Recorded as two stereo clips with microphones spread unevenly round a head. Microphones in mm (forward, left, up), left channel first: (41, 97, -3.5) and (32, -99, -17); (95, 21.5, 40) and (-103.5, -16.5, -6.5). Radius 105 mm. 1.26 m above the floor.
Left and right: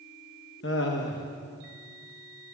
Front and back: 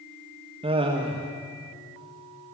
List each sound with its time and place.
0.6 s laughter: 130° left, 1.6 m